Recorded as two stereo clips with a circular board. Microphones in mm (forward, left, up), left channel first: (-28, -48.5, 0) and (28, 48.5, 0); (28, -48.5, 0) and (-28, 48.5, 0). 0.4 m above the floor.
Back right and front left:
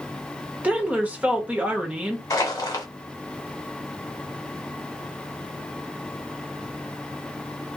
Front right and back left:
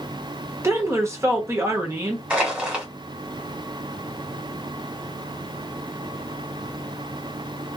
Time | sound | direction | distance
0.6 | a woman speaking | 115° left | 0.8 m
2.3 | crushing | 165° right | 1.2 m